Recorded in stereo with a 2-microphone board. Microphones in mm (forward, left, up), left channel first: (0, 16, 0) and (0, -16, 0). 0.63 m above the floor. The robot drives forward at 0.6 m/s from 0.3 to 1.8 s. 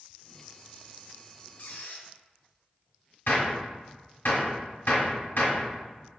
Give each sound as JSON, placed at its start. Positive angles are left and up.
{"t": 1.6, "sound": "a squeak", "side_deg": 65, "distance_m": 0.9}
{"t": 3.3, "sound": "a gunshot", "side_deg": 80, "distance_m": 1.4}